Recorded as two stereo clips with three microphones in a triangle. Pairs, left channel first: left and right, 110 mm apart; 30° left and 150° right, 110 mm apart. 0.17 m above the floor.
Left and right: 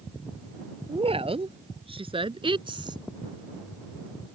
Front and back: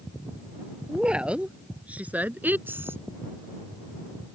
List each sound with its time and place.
0.9 s a woman speaking: 70° right; by 3.0 s 90° right